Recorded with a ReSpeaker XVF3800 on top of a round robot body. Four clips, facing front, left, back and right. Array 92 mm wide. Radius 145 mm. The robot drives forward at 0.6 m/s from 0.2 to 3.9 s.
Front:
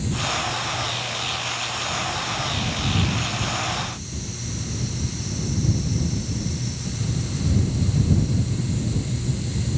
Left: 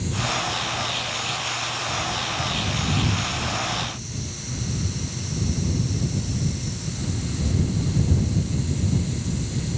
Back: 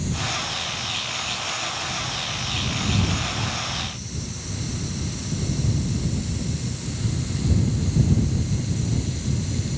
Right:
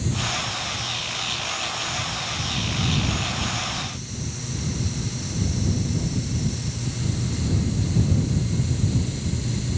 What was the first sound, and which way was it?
Only background noise.